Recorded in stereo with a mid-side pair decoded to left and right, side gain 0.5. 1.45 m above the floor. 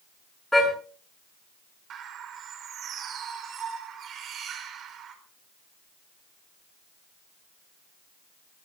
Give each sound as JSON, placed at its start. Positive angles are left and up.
{"t": 0.5, "sound": "a car horn", "azimuth_deg": 10, "distance_m": 9.5}
{"t": 1.9, "sound": "a bird", "azimuth_deg": -55, "distance_m": 4.5}